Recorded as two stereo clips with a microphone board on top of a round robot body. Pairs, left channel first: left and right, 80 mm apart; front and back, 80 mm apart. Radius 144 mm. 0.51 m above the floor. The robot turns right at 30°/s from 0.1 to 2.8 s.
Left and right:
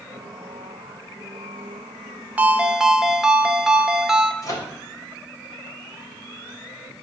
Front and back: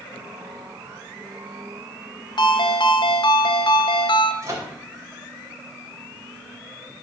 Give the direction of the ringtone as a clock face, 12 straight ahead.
1 o'clock.